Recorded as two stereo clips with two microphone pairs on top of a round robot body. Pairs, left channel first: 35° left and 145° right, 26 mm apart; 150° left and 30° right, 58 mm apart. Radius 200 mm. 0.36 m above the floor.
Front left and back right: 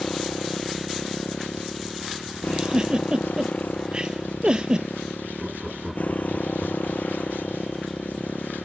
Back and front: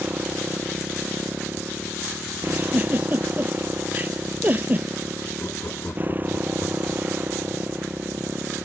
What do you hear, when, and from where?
0.0 s a motorcycle: 25° left
2.5 s a giggle: 90° right
5.4 s laughter: 130° left